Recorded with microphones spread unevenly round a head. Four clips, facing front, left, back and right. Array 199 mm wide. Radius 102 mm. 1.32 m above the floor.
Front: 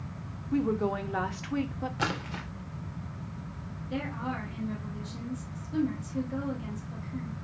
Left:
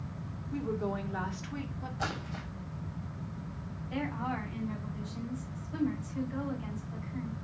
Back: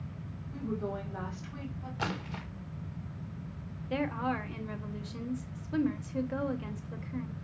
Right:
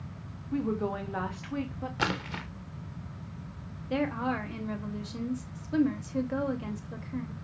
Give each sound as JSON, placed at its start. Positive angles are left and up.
{"t": 0.5, "sound": "a woman speaking", "azimuth_deg": -25, "distance_m": 3.0}
{"t": 2.0, "sound": "a splash", "azimuth_deg": -65, "distance_m": 2.5}
{"t": 3.9, "sound": "a woman speaking", "azimuth_deg": -110, "distance_m": 2.5}